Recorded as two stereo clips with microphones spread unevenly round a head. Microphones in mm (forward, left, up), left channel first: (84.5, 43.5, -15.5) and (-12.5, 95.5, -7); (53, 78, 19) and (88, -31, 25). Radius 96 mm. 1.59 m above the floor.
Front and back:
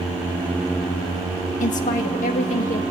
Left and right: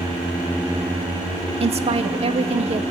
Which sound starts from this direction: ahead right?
A woman speaking, at 1.6 s.